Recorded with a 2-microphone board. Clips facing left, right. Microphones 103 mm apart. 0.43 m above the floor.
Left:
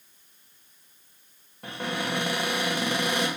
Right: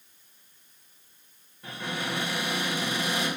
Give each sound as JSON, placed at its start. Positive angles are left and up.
{"t": 1.6, "sound": "a cupboard door", "side_deg": 65, "distance_m": 0.6}